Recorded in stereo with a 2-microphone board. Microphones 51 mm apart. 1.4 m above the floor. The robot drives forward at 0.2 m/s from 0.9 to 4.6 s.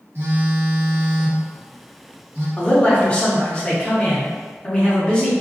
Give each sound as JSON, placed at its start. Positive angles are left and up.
{"t": 0.1, "sound": "a phone buzzing", "side_deg": -50, "distance_m": 0.7}
{"t": 2.6, "sound": "a man speaking", "side_deg": 25, "distance_m": 0.8}